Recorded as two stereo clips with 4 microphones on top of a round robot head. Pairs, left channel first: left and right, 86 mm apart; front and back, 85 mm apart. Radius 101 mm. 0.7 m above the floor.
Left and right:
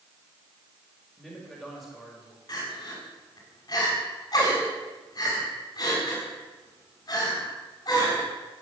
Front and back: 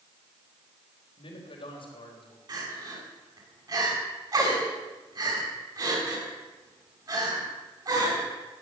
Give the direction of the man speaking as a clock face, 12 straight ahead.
12 o'clock.